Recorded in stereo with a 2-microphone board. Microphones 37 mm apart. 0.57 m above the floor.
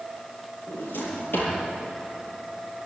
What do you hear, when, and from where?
0.7 s a drawer: 60° left (ahead or behind), 7.5 m